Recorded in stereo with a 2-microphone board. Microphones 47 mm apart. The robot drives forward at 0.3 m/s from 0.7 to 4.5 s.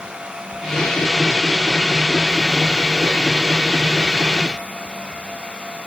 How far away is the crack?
I don't hear a crack.